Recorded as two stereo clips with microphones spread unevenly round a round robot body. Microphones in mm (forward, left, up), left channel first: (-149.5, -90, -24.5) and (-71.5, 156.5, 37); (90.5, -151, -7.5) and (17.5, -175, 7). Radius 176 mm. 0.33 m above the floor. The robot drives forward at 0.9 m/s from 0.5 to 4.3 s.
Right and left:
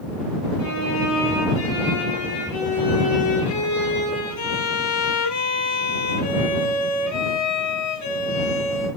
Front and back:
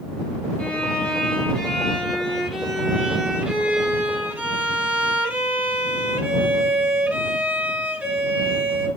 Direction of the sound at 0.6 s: 55° right.